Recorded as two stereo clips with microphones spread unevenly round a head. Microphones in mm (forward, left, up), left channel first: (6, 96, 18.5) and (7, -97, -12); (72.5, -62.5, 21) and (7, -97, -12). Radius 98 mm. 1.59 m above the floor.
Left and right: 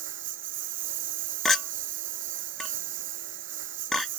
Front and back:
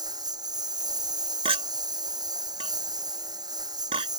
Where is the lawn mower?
125° right.